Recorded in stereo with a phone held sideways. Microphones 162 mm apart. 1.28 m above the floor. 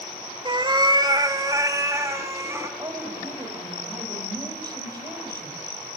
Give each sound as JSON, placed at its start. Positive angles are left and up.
{"t": 0.5, "sound": "a cat meowing", "side_deg": -30, "distance_m": 1.7}
{"t": 2.8, "sound": "a woman speaking", "side_deg": -25, "distance_m": 6.5}